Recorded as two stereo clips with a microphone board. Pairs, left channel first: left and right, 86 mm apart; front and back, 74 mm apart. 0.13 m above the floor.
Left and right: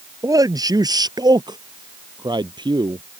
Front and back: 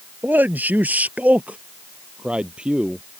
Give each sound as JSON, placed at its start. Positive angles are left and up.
{"t": 0.2, "sound": "a man speaking", "azimuth_deg": -125}